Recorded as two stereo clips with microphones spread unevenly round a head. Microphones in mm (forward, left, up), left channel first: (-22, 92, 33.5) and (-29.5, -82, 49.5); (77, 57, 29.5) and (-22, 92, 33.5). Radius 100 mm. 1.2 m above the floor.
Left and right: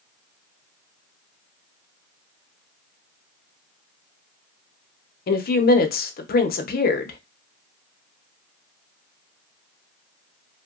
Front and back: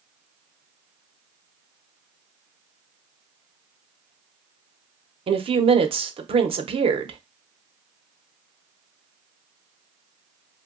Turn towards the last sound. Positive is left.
turn(degrees=125)